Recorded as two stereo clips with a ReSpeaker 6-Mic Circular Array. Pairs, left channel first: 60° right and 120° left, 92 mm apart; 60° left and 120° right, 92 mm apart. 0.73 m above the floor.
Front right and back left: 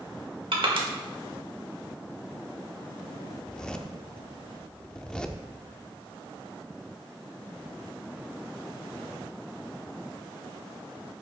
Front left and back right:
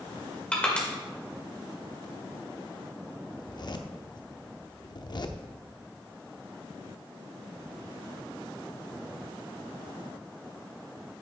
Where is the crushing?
135° left, 1.9 m.